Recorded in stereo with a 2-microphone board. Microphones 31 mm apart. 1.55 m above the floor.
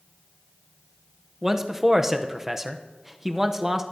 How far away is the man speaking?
About 0.8 m.